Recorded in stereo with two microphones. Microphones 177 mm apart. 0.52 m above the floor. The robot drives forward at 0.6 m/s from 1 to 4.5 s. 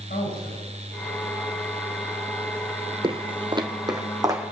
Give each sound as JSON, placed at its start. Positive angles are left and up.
{"t": 0.1, "sound": "a man speaking", "side_deg": 70, "distance_m": 5.0}
{"t": 3.0, "sound": "footsteps", "side_deg": -30, "distance_m": 0.5}